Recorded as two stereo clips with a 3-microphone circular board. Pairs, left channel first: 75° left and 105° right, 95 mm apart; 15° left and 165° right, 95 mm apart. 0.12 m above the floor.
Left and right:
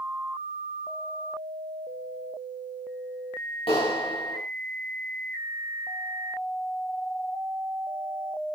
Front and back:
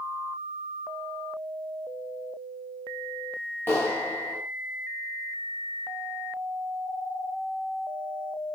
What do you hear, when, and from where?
3.7 s a clap: 80° left, 9.5 m